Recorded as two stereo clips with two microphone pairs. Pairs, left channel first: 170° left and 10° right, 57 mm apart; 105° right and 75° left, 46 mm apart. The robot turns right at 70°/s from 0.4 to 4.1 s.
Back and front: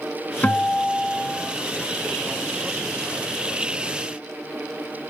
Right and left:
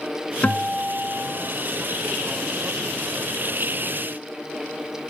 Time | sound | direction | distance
0.4 | a guitar | 150° right | 1.5 m